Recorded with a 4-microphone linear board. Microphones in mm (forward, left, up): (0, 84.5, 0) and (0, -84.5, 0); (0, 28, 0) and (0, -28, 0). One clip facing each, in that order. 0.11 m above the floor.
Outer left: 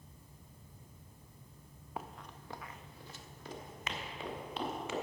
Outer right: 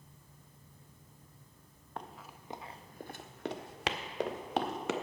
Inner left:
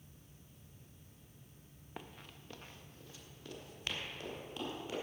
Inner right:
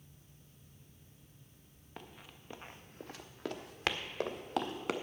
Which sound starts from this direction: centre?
Running footsteps, at 2.0 s.